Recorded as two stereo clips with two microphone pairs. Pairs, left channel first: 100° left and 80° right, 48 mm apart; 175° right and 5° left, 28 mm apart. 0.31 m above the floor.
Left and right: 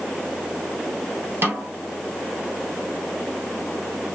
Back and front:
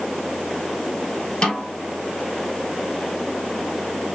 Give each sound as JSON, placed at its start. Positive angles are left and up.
{"t": 1.4, "sound": "a snare drum", "azimuth_deg": -120, "distance_m": 1.3}